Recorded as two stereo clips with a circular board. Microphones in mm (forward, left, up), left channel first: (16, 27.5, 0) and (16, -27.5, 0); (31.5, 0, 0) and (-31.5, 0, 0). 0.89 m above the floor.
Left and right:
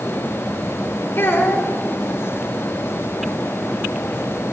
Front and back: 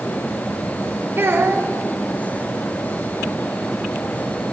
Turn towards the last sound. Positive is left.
turn(degrees=130)